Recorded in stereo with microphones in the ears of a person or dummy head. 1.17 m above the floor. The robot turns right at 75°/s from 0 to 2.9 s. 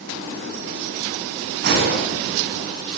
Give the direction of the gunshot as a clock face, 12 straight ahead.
4 o'clock.